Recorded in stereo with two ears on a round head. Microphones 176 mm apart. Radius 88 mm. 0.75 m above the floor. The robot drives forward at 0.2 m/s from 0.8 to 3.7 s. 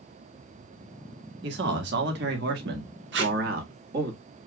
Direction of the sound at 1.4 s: 60° right (ahead or behind).